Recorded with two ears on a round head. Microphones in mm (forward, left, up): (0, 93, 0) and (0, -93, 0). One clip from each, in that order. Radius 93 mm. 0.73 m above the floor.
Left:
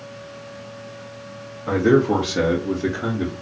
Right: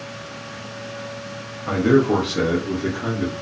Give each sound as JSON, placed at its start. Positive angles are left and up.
{"t": 1.7, "sound": "a man speaking", "side_deg": -5, "distance_m": 0.7}